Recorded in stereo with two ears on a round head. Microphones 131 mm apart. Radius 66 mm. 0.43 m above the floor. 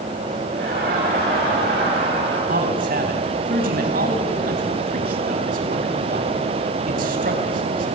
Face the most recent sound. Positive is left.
turn(degrees=-70)  # may be behind; listen again after turning